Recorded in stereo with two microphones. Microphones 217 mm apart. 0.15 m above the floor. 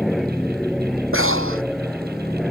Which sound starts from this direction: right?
Breathing, at 1.1 s.